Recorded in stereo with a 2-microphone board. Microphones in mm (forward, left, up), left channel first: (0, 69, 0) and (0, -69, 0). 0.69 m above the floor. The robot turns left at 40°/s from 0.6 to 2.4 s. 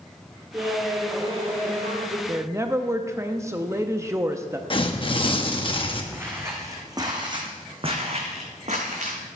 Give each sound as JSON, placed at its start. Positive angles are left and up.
{"t": 0.5, "sound": "laughter", "azimuth_deg": -20, "distance_m": 2.5}
{"t": 2.3, "sound": "a woman speaking", "side_deg": -20, "distance_m": 0.6}
{"t": 4.7, "sound": "tearing paper", "side_deg": 40, "distance_m": 0.9}
{"t": 6.1, "sound": "footsteps", "side_deg": -15, "distance_m": 1.8}